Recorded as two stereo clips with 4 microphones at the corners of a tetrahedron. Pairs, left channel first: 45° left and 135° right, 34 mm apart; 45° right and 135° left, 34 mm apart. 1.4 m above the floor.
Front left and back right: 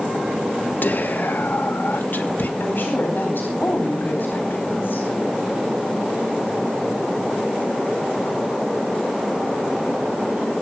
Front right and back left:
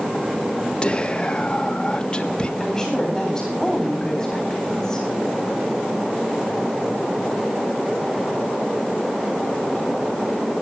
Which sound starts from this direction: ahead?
Whispering, at 0.8 s.